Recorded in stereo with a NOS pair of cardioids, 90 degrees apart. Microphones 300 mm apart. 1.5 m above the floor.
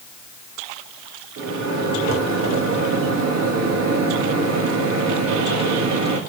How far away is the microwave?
About 1.6 m.